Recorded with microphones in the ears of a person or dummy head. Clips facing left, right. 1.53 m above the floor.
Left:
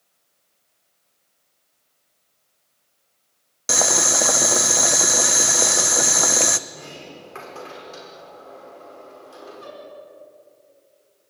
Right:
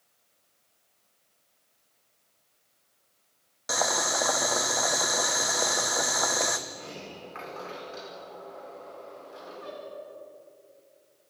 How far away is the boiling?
About 1.0 m.